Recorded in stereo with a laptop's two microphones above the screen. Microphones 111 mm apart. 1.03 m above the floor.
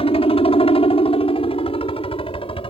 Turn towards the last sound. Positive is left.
turn(degrees=55)  # may be behind; listen again after turning